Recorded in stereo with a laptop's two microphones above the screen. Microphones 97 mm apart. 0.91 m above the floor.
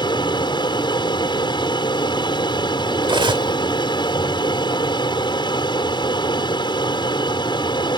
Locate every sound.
0.0 s an aircraft: 50° left (ahead or behind)
3.0 s cutlery clinking: 60° right (ahead or behind)